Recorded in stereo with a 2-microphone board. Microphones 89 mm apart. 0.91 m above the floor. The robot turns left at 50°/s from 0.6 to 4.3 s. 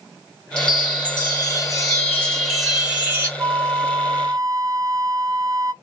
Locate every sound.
0.6 s a chime: 100° left, 1.3 m; by 3.3 s 35° right, 1.3 m
3.4 s a flute: 75° right, 0.5 m; by 5.7 s 120° right, 0.5 m